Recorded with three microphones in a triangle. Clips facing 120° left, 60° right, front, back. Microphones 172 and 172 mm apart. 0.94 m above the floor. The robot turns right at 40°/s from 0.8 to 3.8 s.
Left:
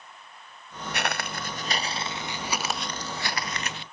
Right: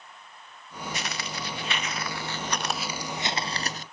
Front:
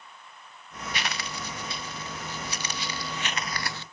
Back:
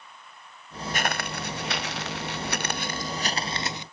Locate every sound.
0.9 s footsteps: 140° left; by 3.8 s 105° right